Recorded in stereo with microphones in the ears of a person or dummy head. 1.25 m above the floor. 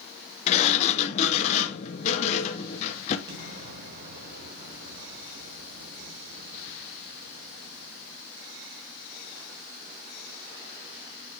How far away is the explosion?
About 3 m.